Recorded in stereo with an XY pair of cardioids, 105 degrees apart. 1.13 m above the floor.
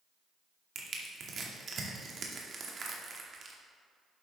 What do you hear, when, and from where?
0.8 s crushing: 45° right, 2.0 m